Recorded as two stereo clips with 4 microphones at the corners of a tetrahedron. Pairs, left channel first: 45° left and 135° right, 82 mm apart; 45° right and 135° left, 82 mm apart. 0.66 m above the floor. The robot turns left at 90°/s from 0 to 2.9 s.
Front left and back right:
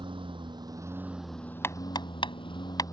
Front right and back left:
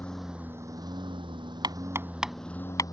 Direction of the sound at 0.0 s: 120° right.